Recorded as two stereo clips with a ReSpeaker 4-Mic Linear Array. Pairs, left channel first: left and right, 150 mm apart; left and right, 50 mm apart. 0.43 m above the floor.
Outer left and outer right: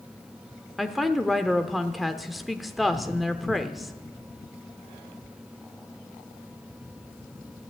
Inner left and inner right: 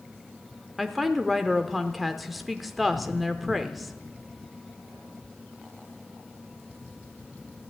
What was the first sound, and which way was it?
A woman speaking, centre (ahead or behind).